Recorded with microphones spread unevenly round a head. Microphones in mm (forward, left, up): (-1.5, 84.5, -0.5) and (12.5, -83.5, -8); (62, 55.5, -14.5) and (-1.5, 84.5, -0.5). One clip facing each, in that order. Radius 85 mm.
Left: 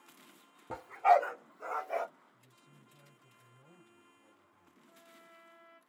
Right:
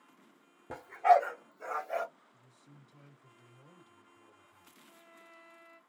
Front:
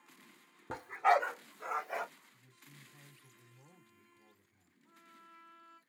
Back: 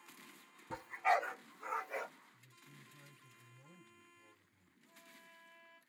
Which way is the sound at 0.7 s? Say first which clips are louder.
Right 1 dB, front 5 dB; 5° right.